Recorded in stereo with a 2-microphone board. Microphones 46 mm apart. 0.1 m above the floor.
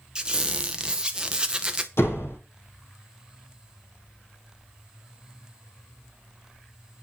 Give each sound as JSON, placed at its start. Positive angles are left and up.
{"t": 0.1, "sound": "a squeak", "side_deg": -20, "distance_m": 1.0}
{"t": 2.0, "sound": "a door slam", "side_deg": 65, "distance_m": 3.0}